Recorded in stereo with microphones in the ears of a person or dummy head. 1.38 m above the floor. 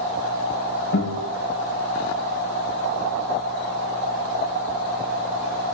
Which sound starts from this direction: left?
A guitar, at 0.9 s.